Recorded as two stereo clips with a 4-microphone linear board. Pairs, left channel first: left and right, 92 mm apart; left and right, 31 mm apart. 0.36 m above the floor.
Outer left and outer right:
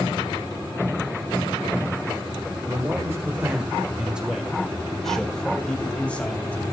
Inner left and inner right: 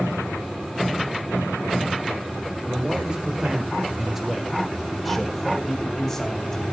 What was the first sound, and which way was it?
A man speaking, 30° right (ahead or behind).